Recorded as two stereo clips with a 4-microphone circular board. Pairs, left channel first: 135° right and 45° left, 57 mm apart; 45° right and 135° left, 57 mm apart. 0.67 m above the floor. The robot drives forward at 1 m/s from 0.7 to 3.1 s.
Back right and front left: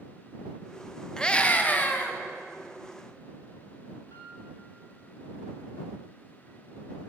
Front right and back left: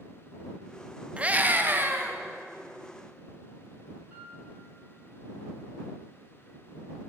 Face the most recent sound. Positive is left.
turn(degrees=-160)